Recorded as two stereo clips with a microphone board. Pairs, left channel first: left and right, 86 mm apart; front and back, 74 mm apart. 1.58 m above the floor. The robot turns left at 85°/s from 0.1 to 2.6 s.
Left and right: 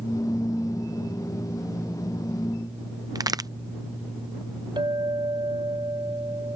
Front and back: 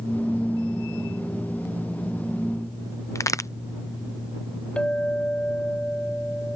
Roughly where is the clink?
Right.